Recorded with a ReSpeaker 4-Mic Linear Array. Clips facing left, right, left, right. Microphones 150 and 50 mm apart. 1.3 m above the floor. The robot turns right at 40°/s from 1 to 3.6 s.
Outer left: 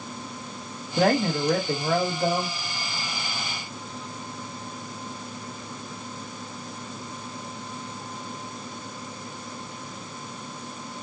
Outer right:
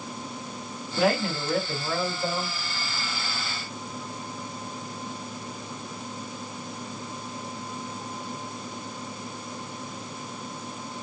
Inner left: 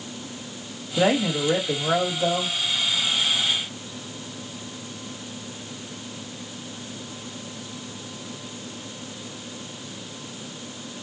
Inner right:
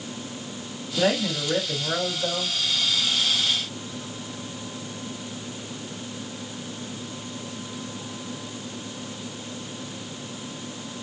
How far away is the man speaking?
About 2.5 m.